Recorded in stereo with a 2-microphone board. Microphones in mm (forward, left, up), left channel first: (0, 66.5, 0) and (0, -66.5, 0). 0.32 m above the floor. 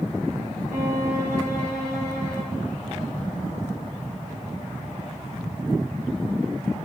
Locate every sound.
0.7 s a violin: 80° right, 6 m